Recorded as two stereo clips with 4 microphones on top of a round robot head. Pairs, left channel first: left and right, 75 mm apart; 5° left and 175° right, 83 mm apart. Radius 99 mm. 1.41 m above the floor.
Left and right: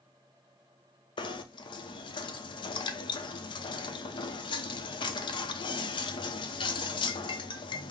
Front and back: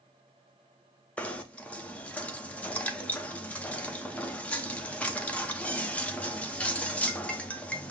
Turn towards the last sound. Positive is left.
turn(degrees=80)